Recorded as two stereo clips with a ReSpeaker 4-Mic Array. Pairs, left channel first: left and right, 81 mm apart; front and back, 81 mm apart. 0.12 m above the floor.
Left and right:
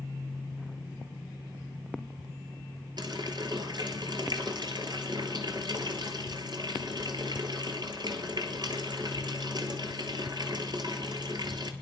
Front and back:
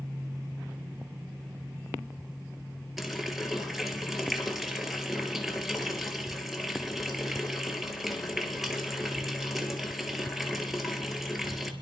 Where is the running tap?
95° right, 1.7 m.